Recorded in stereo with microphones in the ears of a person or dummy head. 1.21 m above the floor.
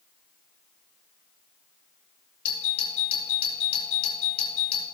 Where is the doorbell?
35° left (ahead or behind), 6 m.